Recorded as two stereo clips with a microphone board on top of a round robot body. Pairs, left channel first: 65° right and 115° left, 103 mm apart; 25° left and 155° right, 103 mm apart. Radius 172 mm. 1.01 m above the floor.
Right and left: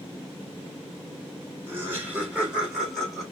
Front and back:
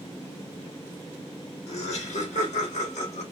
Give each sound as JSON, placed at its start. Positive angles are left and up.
{"t": 1.7, "sound": "laughter", "azimuth_deg": 45, "distance_m": 3.0}